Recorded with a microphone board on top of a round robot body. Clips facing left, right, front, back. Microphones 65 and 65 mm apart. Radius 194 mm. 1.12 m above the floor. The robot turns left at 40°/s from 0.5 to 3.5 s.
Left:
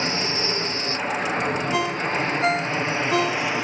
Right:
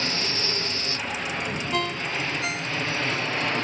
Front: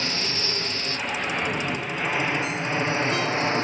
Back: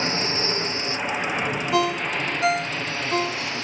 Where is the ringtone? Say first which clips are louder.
Left 4 dB, back 4 dB; 175° left; by 3.5 s 105° left.